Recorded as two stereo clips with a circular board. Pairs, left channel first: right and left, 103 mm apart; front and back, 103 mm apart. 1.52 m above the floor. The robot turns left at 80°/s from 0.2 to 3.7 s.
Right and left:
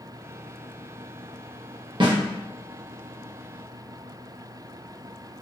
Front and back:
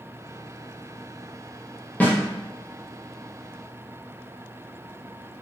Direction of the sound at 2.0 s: 70° left.